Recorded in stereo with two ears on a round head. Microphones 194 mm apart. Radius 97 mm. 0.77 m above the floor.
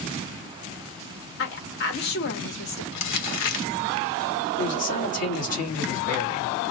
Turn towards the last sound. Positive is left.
turn(degrees=35)  # may be behind; listen again after turning